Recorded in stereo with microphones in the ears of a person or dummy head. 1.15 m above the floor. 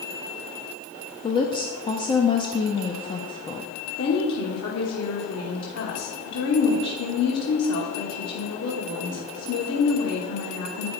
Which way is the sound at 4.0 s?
75° left (ahead or behind).